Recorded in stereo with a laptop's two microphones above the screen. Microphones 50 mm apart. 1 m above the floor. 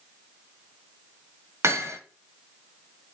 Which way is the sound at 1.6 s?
60° right (ahead or behind).